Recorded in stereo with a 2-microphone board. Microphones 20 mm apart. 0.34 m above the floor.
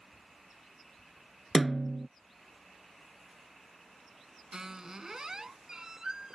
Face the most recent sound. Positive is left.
turn(degrees=-35)  # may be behind; listen again after turning